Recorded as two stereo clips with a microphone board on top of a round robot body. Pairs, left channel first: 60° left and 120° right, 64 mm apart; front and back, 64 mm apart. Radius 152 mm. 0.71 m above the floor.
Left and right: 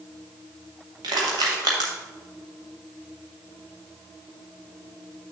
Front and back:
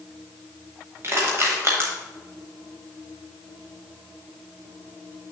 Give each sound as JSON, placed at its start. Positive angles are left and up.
{"t": 1.0, "sound": "crushing", "azimuth_deg": -130, "distance_m": 0.8}